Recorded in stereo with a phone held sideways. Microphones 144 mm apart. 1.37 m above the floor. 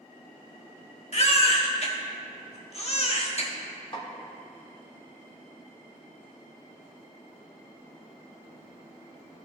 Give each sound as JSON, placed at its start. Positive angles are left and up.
{"t": 1.1, "sound": "a baby crying", "side_deg": 45, "distance_m": 1.2}
{"t": 3.9, "sound": "a snare drum", "side_deg": 35, "distance_m": 1.4}